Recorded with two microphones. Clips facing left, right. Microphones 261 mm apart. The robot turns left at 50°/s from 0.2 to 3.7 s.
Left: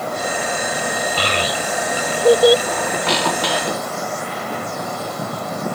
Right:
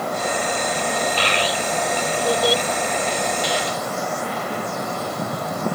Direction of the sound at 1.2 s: 45° left (ahead or behind).